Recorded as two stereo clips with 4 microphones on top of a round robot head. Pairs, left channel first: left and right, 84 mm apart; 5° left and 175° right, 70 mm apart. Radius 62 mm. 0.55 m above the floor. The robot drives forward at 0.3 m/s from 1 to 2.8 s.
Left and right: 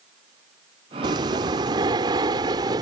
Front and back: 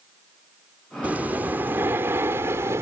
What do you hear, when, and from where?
1.0 s breathing: 110° right; by 2.8 s 125° right